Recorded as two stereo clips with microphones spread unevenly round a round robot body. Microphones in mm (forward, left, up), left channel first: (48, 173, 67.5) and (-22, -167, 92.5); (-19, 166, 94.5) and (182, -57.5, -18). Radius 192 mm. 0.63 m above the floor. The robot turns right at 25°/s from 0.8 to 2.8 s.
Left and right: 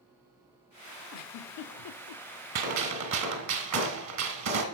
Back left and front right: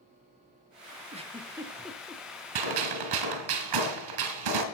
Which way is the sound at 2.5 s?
65° right.